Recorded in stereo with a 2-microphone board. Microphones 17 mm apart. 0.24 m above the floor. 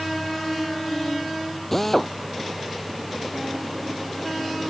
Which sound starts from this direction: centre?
A drill, at 1.7 s.